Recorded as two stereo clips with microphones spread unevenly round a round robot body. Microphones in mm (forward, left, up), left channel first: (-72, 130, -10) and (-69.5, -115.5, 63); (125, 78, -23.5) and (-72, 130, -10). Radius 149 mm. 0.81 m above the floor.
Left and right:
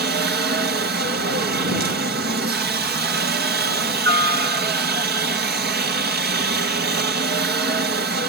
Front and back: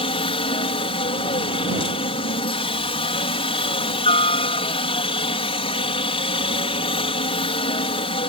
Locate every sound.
0.0 s a helicopter: 45° right